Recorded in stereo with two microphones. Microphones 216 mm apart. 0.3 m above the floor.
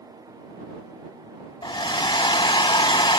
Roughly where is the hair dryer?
Left.